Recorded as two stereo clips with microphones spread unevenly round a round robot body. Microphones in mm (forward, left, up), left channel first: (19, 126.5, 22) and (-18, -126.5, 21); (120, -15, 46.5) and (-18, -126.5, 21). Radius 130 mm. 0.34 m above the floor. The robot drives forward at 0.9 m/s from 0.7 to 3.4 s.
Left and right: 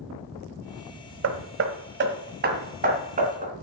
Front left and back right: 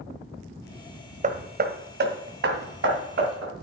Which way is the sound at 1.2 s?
115° right.